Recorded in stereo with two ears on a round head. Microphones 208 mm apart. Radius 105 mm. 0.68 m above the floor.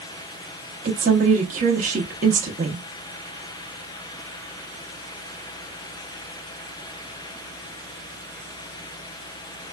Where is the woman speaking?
35° right (ahead or behind), 0.7 m.